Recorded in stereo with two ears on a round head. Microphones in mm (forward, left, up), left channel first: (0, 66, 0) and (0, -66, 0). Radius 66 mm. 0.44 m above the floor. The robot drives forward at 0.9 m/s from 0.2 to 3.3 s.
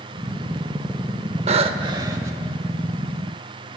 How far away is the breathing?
About 0.6 m.